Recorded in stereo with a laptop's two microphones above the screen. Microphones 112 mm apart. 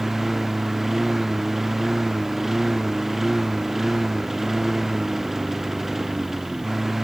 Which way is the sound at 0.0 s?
Centre (ahead or behind).